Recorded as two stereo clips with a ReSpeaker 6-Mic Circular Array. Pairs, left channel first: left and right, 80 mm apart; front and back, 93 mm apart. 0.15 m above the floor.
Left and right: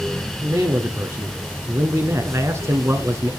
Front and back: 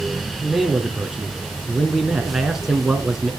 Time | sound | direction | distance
0.4 | a man speaking | 95° right | 1.3 m